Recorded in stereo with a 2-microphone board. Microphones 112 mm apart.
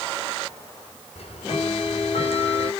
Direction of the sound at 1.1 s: 60° left (ahead or behind).